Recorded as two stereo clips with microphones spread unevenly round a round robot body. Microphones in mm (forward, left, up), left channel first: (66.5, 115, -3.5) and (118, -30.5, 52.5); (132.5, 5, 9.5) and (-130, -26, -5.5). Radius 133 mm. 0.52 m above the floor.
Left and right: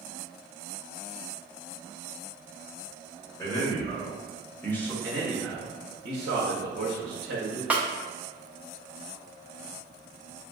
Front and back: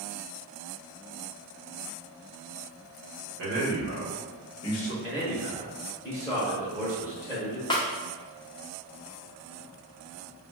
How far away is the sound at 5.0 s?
About 0.9 m.